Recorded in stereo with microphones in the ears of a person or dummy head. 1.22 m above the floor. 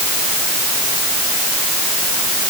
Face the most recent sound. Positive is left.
No sound to turn to.